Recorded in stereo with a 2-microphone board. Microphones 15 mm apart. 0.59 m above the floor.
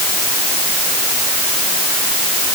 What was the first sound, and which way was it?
Only background noise.